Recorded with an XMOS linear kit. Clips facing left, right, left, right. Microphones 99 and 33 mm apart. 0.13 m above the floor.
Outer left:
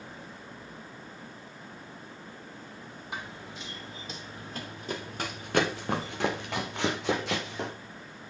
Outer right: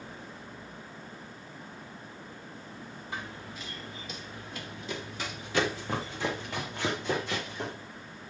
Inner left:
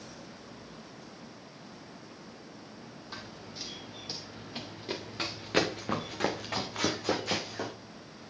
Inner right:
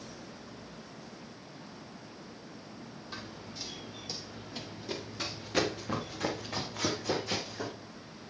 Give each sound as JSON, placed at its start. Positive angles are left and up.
{"t": 3.1, "sound": "running footsteps", "side_deg": 20, "distance_m": 2.5}